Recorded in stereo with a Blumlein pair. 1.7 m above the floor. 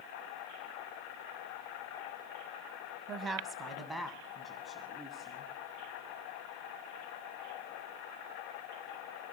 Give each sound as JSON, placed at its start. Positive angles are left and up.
{"t": 3.1, "sound": "a woman speaking", "azimuth_deg": -25, "distance_m": 1.8}